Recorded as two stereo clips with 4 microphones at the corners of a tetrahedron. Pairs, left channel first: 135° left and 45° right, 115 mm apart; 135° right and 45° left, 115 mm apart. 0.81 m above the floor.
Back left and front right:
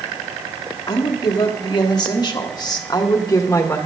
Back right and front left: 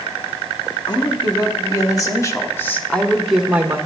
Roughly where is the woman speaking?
Behind.